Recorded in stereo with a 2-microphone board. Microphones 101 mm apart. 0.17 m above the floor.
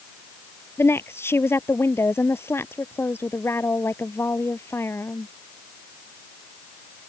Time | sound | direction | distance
0.8 | a woman speaking | 25° left (ahead or behind) | ?